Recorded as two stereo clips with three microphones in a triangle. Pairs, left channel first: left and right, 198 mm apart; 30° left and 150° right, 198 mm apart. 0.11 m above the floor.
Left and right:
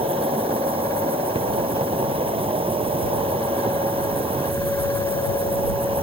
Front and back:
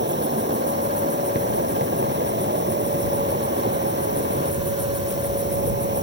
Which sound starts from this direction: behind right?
An insect, at 0.0 s.